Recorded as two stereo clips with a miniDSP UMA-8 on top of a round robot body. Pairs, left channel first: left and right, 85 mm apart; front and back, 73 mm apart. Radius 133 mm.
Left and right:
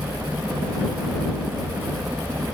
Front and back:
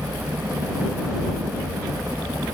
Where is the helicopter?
140° right; by 2.5 s 150° right.